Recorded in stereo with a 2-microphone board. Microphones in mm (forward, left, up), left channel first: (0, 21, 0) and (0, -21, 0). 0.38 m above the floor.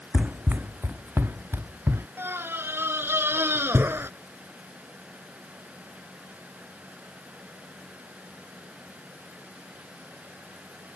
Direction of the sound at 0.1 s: 35° right (ahead or behind).